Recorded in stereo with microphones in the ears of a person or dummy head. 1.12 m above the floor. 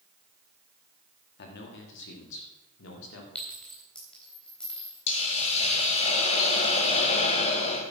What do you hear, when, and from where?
1.4 s a man speaking: 55° left (ahead or behind), 1.9 m; by 3.2 s 80° left, 2.5 m
3.4 s a clink: 5° left (ahead or behind), 3.5 m
5.1 s a hiss: 35° left (ahead or behind), 1.7 m